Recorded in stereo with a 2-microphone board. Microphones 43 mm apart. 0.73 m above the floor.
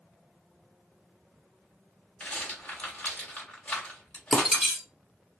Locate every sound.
2.2 s a rattle: 40° left (ahead or behind), 1.7 m
4.3 s breaking glass: 5° right (ahead or behind), 1.0 m